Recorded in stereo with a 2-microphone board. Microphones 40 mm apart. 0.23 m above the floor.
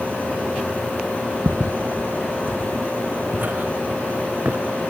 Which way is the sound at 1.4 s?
55° right (ahead or behind).